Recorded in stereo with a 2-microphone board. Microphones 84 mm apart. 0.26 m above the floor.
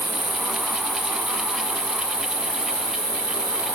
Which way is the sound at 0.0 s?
40° right (ahead or behind).